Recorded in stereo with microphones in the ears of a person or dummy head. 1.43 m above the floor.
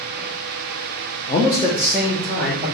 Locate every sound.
1.3 s a man speaking: 30° left (ahead or behind), 0.6 m; by 2.8 s 5° right (ahead or behind), 1.5 m